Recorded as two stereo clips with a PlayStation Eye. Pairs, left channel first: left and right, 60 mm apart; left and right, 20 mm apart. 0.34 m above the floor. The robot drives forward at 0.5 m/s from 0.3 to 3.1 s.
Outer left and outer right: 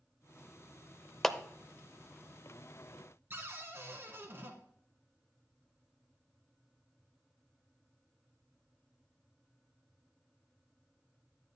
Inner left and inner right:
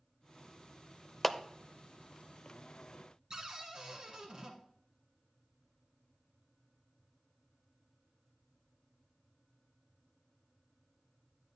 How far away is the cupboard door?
About 1.7 m.